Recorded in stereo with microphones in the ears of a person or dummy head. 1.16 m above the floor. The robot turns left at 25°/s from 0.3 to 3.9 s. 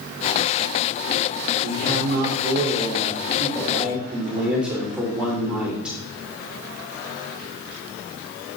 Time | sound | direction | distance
1.6 | a man speaking | 115° right | 3 m